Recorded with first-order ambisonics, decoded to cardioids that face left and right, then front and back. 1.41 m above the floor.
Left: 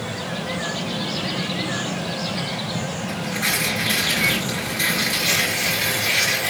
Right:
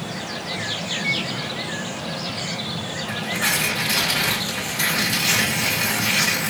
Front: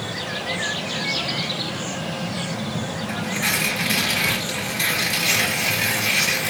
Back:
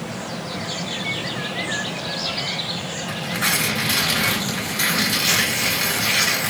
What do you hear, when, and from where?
3.1 s tearing paper: 150° right, 2.5 m